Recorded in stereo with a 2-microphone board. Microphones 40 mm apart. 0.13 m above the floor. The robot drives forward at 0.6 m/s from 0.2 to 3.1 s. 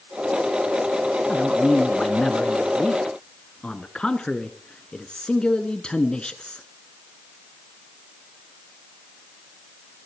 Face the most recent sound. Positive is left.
turn(degrees=25)  # may be behind; listen again after turning